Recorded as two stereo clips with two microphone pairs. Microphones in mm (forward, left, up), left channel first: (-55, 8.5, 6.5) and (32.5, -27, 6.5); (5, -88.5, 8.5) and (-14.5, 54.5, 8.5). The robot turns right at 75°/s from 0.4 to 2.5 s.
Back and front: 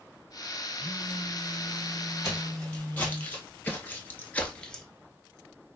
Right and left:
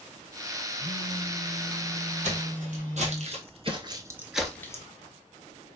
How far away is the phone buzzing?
About 1.4 m.